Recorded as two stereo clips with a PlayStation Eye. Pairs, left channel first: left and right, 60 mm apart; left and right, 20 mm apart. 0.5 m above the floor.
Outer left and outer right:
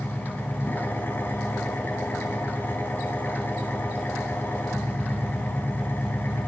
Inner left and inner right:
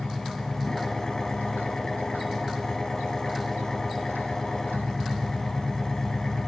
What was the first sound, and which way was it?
An engine running, 35° left (ahead or behind).